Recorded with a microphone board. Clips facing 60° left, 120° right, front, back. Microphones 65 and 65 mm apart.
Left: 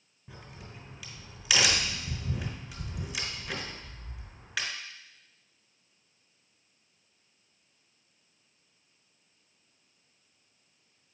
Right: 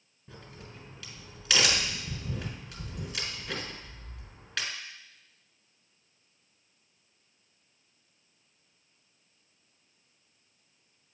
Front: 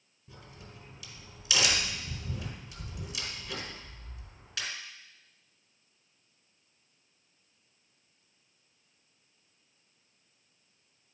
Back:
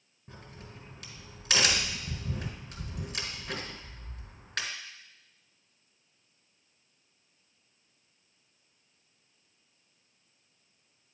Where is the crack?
140° left, 1.7 m.